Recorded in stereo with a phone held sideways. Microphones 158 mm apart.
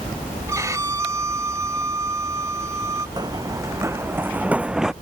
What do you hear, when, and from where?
0.5 s a violin: 20° right (ahead or behind)
3.2 s running footsteps: 25° right (ahead or behind); by 4.9 s 5° right (ahead or behind)